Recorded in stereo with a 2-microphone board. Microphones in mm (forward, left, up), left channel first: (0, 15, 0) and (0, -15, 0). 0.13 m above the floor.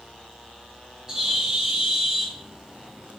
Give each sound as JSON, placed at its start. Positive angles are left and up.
{"t": 1.1, "sound": "a bird", "side_deg": -15, "distance_m": 1.1}